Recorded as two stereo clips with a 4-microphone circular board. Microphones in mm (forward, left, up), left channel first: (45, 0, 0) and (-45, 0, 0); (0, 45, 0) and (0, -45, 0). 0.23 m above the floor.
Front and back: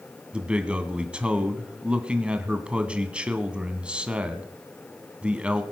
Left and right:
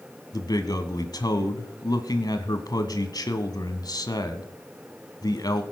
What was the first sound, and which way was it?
A man speaking, 105° left.